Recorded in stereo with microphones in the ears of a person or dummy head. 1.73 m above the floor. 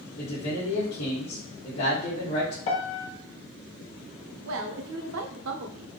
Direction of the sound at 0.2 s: 60° left (ahead or behind).